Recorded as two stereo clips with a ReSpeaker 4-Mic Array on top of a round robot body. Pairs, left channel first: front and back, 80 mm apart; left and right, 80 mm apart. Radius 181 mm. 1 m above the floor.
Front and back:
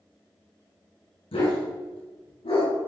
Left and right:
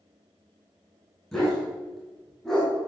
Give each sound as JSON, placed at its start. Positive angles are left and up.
{"t": 1.3, "sound": "a dog barking", "azimuth_deg": 5, "distance_m": 6.0}